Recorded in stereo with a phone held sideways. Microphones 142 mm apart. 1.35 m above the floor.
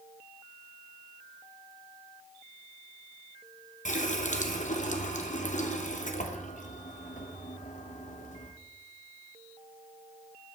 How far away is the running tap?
About 0.9 m.